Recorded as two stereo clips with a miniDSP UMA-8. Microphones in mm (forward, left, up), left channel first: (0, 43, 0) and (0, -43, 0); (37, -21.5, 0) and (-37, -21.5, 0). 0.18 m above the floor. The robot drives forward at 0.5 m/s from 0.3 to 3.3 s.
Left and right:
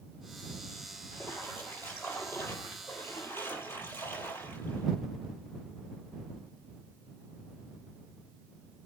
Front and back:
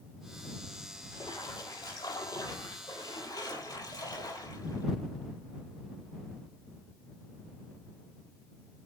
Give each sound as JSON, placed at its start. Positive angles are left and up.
{"t": 1.1, "sound": "a splash", "azimuth_deg": 20, "distance_m": 6.0}